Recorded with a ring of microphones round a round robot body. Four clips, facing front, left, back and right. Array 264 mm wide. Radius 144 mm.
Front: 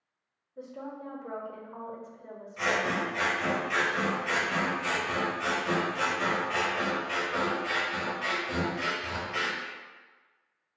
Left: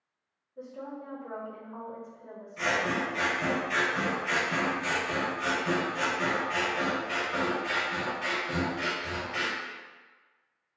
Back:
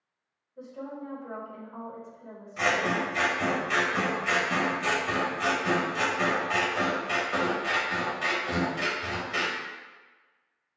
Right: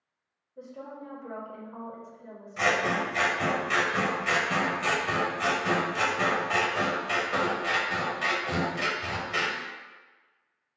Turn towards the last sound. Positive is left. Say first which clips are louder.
# right 3 dB, back 2 dB
turn(degrees=-120)